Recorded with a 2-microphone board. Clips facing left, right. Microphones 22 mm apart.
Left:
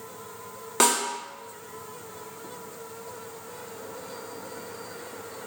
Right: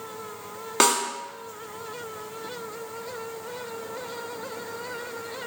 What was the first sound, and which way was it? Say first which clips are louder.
A snare drum: right 2 dB; 20° right (ahead or behind).